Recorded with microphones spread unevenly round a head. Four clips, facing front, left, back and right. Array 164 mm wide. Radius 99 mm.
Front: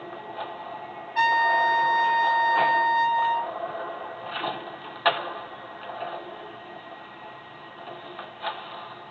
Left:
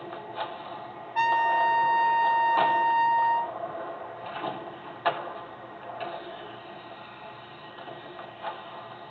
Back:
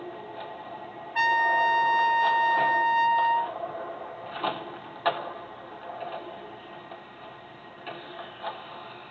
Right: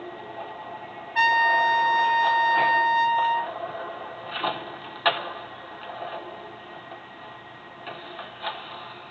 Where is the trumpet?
145° right, 1.2 m.